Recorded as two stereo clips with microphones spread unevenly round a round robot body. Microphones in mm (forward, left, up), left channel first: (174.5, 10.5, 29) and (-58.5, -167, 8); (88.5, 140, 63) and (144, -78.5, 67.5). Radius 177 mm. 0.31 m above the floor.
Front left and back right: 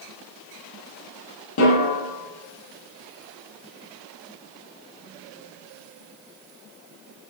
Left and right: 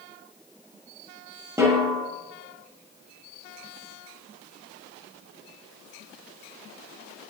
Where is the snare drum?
Straight ahead, 8 m.